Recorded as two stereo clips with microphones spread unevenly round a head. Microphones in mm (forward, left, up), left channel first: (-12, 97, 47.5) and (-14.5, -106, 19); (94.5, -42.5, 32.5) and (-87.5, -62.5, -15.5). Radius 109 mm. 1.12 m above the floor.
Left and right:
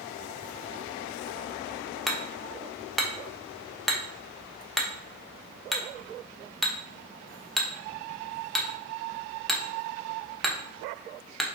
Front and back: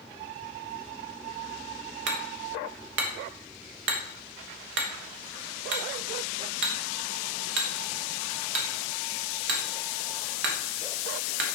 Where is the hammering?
Straight behind, 1.1 m.